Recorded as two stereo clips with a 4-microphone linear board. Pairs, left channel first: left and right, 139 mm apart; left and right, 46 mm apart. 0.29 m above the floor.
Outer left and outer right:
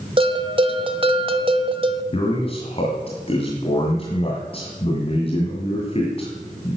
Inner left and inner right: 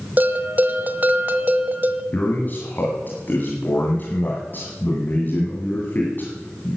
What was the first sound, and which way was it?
A bell, 40° right (ahead or behind).